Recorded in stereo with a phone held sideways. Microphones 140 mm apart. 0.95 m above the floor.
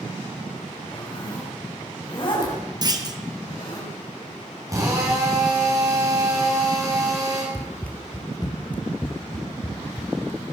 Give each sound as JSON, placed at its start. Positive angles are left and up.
{"t": 0.9, "sound": "a zipper", "side_deg": 35, "distance_m": 4.5}
{"t": 2.8, "sound": "a clunk", "side_deg": -30, "distance_m": 1.3}
{"t": 4.7, "sound": "a drill", "side_deg": -25, "distance_m": 5.5}
{"t": 7.5, "sound": "running footsteps", "side_deg": 0, "distance_m": 1.2}